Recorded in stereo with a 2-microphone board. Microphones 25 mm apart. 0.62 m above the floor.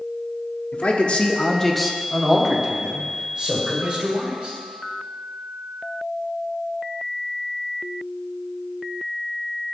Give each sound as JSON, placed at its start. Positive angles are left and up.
{"t": 0.7, "sound": "a man speaking", "side_deg": 55, "distance_m": 1.0}